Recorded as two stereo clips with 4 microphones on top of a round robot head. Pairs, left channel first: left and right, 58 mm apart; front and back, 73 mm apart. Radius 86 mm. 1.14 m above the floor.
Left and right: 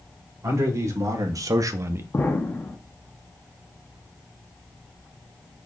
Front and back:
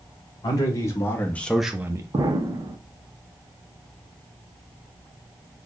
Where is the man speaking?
50° right, 1.4 m; by 2.0 s 140° right, 0.6 m.